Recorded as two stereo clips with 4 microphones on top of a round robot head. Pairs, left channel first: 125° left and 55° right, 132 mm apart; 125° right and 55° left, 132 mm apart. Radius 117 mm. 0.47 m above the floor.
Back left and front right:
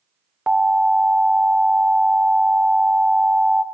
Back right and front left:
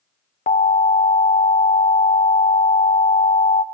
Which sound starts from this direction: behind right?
An alarm, at 0.5 s.